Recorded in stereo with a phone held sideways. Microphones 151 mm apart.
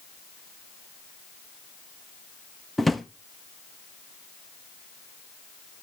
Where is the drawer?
Centre (ahead or behind), 0.5 m.